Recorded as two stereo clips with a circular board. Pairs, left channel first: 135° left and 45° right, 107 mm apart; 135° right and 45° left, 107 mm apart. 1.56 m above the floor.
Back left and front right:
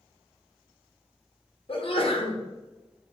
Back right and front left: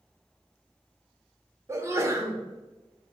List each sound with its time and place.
1.7 s a sneeze: 105° left, 0.9 m